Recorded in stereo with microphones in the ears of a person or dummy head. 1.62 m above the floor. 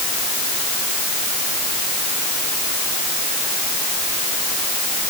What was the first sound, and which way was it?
Only background noise.